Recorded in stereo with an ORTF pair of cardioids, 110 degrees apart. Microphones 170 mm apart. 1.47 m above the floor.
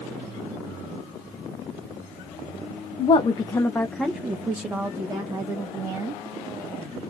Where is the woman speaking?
40° left, 0.8 m; by 6.2 s 25° right, 2 m.